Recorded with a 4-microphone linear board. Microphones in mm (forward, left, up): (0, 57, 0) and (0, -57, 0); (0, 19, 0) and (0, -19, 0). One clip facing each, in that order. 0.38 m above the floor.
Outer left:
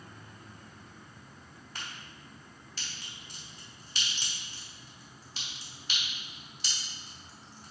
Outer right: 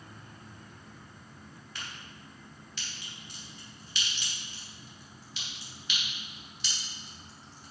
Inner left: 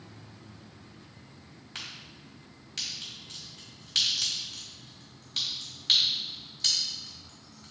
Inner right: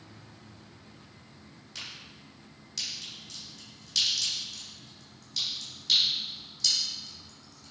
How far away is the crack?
About 3 m.